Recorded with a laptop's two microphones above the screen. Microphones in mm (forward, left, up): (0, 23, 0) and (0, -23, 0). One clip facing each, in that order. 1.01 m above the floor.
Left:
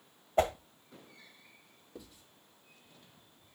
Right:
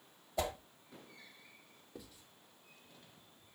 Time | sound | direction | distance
0.4 | a whoosh | 40° left (ahead or behind) | 0.9 m
1.9 | writing | centre (ahead or behind) | 3 m